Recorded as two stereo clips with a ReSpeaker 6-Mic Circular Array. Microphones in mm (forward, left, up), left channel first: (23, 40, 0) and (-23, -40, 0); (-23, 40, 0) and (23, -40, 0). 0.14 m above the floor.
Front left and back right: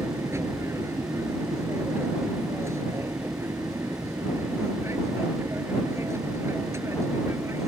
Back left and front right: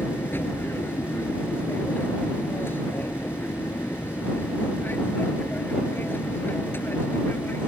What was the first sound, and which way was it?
An aircraft, 175° right.